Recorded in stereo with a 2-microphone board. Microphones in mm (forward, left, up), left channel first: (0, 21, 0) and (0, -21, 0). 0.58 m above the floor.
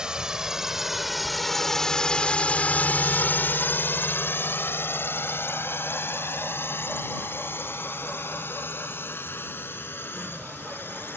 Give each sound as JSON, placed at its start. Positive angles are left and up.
{"t": 0.0, "sound": "a drone", "side_deg": -20}